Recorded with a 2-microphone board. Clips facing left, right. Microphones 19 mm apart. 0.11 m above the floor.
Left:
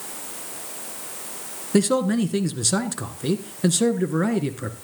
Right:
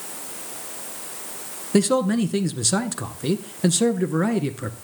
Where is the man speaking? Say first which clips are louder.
Right 1 dB; centre (ahead or behind), 1.3 m.